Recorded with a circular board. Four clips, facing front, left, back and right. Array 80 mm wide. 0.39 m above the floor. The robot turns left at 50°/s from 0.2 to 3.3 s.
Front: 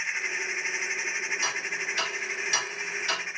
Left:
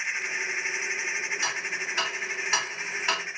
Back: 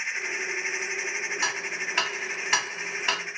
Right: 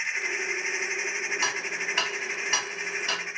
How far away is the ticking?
About 1.0 m.